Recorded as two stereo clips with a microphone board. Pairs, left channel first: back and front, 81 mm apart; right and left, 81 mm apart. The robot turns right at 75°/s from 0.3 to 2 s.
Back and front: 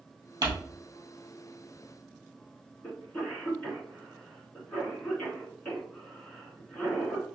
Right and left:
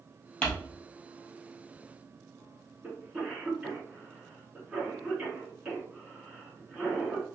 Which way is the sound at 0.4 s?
10° right.